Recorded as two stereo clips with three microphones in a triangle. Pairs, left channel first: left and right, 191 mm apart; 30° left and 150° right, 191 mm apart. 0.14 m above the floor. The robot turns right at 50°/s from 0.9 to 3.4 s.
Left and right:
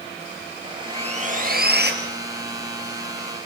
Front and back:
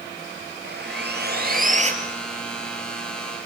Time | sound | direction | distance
0.6 | sawing | 150° right | 3.5 m